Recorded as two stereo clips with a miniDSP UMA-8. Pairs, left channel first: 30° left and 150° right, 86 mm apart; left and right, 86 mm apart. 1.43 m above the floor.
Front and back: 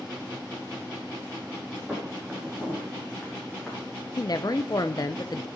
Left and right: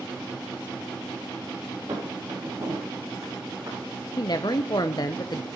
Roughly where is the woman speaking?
Ahead left.